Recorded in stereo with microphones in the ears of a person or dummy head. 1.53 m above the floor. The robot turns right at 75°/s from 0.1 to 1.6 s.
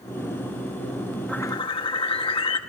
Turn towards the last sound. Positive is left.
turn(degrees=30)  # may be behind; listen again after turning